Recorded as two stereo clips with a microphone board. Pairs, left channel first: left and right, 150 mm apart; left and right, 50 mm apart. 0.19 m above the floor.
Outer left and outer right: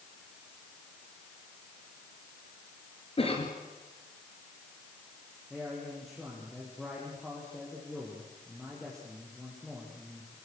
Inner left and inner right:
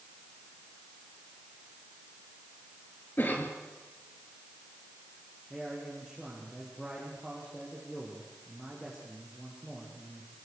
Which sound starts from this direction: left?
A cough, at 3.2 s.